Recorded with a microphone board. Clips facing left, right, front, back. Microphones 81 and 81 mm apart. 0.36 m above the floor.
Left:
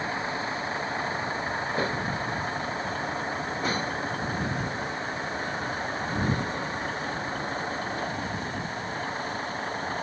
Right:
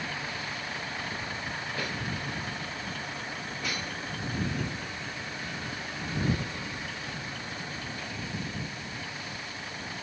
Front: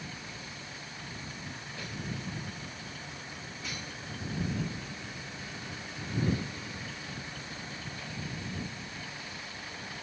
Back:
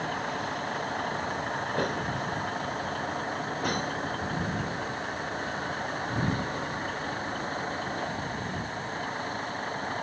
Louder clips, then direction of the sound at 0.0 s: Left 6 dB, back 13 dB; 150° left.